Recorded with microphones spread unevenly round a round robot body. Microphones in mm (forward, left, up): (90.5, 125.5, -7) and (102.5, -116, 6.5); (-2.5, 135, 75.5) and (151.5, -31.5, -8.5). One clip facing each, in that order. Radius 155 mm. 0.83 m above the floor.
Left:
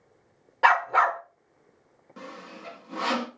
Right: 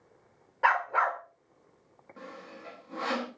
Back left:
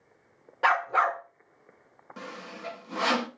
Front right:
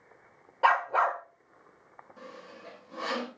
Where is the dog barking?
115° left, 0.6 m.